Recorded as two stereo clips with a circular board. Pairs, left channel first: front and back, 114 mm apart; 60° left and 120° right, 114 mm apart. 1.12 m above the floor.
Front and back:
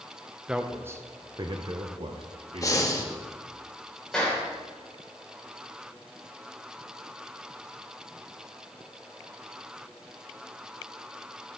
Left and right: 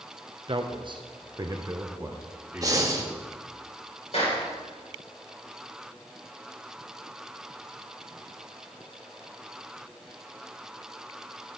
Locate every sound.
0.5 s a man speaking: 100° right, 0.8 m; by 3.2 s 160° left, 1.4 m
2.6 s breathing: 60° right, 1.0 m
4.1 s a clap: 85° left, 3.5 m